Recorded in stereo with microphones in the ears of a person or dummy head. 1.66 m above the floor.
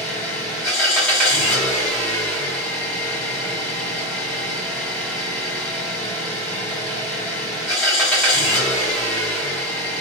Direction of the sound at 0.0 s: 10° left (ahead or behind).